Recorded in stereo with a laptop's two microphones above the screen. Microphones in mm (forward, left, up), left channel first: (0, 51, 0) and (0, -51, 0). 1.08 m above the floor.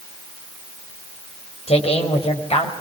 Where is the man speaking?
80° left, 5 m.